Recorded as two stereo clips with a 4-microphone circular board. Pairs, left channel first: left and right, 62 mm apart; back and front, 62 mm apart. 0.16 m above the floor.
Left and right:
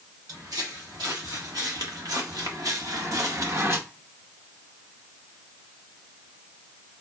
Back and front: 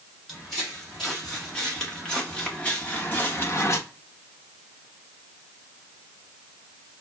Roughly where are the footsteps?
Right.